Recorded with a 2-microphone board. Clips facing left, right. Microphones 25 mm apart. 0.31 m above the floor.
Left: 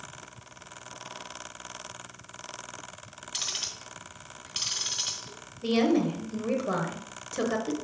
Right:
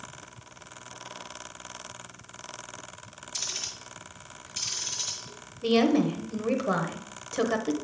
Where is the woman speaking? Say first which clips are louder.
Right 2 dB; 15° right (ahead or behind), 1.0 m.